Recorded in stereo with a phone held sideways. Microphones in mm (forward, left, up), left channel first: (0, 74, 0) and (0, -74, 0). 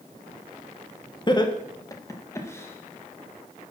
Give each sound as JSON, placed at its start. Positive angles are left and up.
{"t": 1.3, "sound": "laughter", "side_deg": 30, "distance_m": 1.3}